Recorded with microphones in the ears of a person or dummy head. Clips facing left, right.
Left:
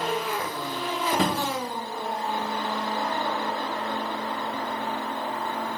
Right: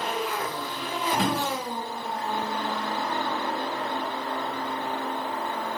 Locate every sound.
1.1 s a drawer: 45° left (ahead or behind), 0.7 m